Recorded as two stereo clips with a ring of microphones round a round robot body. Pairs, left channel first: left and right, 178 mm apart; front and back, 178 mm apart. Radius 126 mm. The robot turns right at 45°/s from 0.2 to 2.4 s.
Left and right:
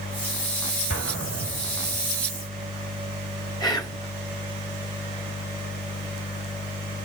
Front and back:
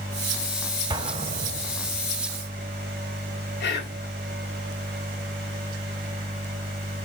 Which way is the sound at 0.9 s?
115° left.